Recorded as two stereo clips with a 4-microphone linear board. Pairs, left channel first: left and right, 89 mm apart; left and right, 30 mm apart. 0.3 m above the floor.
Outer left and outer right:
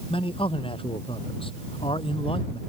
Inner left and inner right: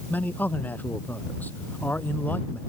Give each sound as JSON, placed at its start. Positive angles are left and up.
{"t": 0.1, "sound": "a man speaking", "side_deg": 70}